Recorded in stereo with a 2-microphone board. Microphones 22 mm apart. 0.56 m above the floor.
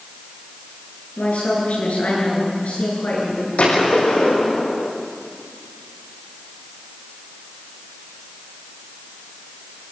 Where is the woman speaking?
80° left, 9.5 m.